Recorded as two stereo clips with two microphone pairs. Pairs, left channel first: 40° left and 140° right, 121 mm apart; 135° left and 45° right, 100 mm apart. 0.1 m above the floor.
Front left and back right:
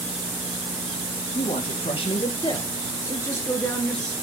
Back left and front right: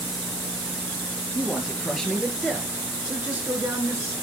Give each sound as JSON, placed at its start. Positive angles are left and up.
{"t": 1.4, "sound": "a man speaking", "azimuth_deg": 60, "distance_m": 2.0}